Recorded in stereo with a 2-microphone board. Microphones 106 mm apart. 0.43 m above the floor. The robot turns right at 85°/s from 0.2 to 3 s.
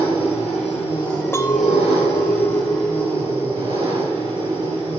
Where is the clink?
25° left, 0.7 m; by 5.0 s 170° left, 0.7 m.